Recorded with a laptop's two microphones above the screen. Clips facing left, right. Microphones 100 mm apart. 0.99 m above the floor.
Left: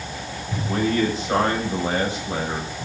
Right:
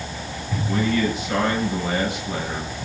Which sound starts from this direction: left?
A man speaking, at 0.7 s.